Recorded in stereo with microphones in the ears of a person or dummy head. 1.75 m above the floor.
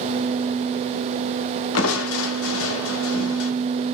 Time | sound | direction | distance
1.8 | crushing | 80° left | 0.7 m